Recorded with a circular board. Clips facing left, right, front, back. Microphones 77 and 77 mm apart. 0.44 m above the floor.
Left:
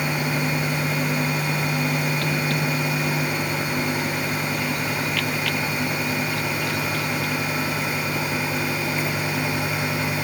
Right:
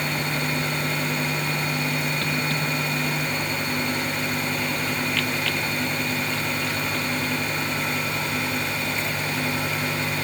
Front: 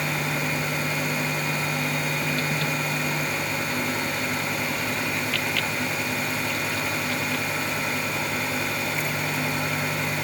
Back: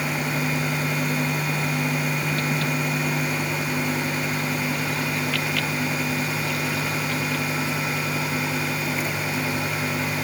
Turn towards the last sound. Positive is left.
No sound to turn to.